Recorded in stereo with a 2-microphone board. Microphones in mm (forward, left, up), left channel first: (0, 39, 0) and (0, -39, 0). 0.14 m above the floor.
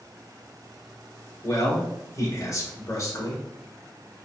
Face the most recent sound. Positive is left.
turn(degrees=40)  # may be behind; listen again after turning